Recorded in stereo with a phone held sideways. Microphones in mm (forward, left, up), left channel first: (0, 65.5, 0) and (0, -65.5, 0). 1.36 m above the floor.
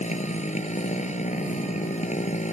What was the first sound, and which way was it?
A motorcycle, 65° left (ahead or behind).